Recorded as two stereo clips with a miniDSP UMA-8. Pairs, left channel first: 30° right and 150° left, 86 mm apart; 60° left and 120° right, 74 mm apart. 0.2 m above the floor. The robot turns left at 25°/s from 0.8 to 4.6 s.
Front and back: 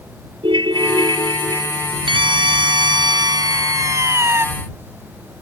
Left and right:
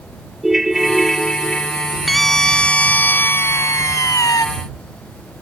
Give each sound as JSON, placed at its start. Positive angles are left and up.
{"t": 0.4, "sound": "a ringtone", "azimuth_deg": 155}
{"t": 2.1, "sound": "a scream", "azimuth_deg": 150}